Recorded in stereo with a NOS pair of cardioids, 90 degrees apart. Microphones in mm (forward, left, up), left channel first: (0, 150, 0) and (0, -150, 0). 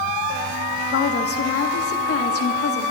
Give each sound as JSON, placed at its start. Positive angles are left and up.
{"t": 0.9, "sound": "a woman speaking", "azimuth_deg": 50, "distance_m": 1.6}